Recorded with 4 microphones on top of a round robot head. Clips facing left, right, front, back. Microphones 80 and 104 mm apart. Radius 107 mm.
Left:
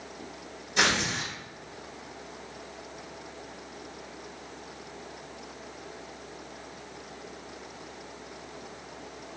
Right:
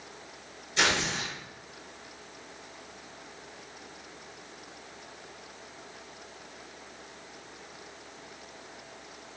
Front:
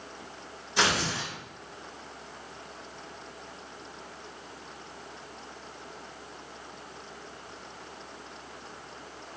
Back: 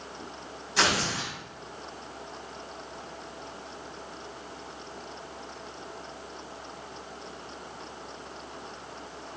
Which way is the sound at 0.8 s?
70° left.